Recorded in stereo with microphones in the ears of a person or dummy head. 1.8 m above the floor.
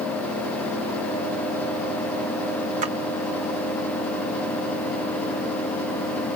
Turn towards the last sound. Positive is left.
turn(degrees=-40)  # may be behind; listen again after turning